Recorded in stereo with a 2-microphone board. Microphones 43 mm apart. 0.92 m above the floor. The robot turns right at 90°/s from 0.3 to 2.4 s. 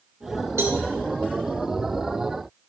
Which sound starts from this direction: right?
A cowbell, at 0.6 s.